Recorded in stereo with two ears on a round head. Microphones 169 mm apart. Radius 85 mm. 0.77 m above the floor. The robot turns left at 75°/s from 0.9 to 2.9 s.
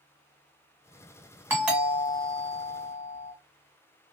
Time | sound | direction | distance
1.5 | a doorbell | 160° right | 1.7 m